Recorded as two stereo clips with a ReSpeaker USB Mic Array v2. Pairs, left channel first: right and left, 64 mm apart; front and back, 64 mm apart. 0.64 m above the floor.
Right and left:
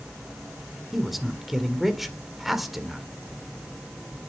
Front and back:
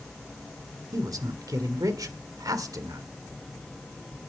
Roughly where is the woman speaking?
Behind.